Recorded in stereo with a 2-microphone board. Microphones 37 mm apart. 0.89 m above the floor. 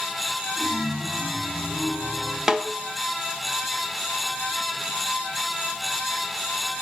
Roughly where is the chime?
Right.